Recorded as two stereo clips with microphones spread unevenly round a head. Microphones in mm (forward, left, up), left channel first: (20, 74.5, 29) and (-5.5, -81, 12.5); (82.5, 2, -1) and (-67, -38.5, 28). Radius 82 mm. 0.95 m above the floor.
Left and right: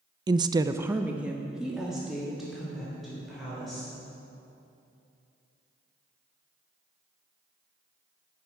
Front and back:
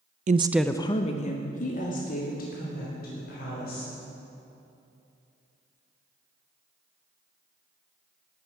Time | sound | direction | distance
0.3 | a woman speaking | 140° right | 0.5 m